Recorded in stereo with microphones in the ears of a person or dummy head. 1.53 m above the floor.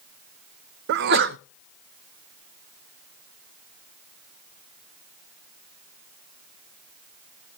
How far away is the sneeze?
About 0.5 m.